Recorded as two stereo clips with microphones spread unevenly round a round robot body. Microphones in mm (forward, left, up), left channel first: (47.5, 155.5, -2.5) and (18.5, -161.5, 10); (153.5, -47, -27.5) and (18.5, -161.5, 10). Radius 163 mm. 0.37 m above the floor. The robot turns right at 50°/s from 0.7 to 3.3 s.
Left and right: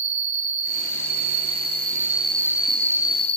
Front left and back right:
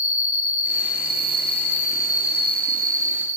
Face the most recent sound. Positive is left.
turn(degrees=25)